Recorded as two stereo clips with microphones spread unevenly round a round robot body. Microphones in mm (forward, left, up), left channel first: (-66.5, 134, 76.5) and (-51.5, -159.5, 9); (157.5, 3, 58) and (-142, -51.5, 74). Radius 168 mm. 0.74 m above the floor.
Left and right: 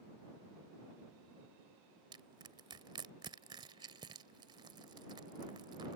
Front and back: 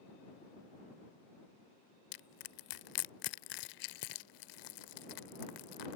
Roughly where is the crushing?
Ahead.